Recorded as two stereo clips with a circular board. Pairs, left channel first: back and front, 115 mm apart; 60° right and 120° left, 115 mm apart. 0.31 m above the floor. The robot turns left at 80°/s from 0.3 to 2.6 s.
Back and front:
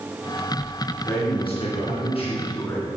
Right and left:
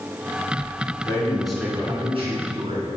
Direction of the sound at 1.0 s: 115° right.